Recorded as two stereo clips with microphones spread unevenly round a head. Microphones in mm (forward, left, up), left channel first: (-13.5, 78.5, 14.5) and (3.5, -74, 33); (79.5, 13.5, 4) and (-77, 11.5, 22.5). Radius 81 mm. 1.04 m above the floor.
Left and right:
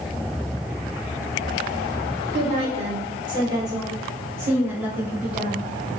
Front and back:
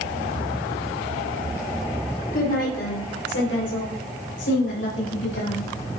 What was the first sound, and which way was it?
A woman speaking, 40° right.